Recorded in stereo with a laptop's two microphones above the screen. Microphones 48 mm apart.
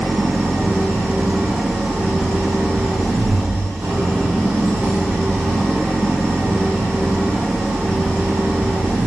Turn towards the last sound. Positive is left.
turn(degrees=-65)  # may be behind; listen again after turning